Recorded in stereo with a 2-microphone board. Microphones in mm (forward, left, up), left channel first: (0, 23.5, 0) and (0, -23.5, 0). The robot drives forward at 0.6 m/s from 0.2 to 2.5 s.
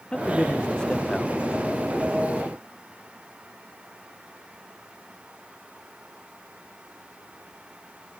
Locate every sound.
0.1 s a man speaking: 15° left (ahead or behind)